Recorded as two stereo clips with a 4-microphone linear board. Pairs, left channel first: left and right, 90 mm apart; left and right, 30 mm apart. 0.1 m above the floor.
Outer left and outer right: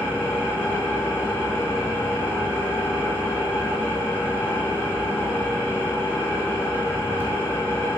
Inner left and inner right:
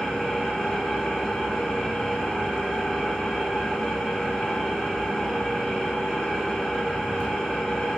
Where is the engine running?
20° left (ahead or behind), 1.9 m.